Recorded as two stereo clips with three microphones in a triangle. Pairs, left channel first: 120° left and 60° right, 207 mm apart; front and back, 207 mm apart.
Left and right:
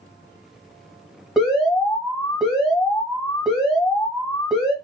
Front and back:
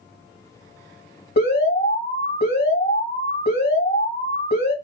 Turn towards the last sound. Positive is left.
turn(degrees=30)